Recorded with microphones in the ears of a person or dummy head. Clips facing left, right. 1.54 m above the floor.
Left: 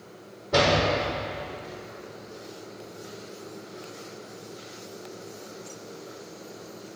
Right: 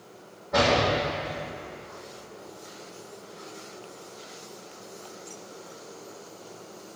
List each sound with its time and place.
0.5 s a door slam: 50° left (ahead or behind), 5 m